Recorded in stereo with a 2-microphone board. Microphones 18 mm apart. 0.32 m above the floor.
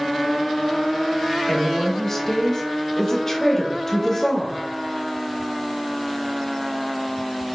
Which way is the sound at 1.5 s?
25° left (ahead or behind).